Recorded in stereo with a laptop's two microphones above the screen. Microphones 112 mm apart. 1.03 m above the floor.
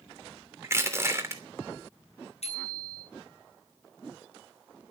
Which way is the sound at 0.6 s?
25° right (ahead or behind).